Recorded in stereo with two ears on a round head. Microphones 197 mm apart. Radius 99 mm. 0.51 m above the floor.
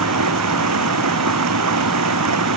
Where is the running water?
85° right.